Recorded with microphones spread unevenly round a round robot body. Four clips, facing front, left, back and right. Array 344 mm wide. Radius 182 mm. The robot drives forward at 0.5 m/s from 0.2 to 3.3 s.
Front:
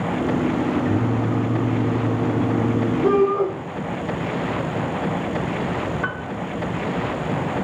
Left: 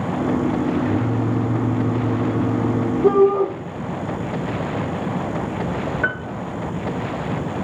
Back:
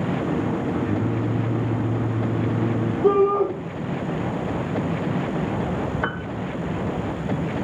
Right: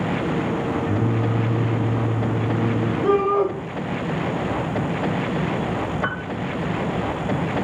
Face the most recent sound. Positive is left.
turn(degrees=145)